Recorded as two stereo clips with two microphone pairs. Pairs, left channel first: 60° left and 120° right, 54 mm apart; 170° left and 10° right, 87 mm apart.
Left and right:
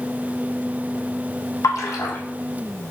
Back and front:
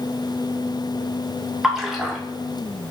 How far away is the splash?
About 0.7 m.